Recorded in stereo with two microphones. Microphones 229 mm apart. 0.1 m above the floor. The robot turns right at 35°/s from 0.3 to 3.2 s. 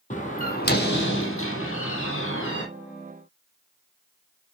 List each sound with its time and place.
0.1 s a door slam: 35° left, 3.5 m; by 2.6 s 120° left, 3.5 m